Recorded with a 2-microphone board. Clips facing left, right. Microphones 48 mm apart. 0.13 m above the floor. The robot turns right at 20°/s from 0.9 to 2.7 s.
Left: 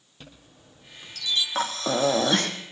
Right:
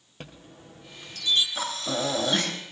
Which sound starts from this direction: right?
A chime, at 0.2 s.